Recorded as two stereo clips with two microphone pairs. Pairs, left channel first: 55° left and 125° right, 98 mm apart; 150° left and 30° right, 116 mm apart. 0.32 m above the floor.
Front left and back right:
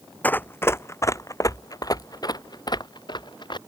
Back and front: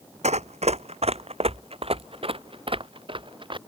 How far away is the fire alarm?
I don't hear a fire alarm.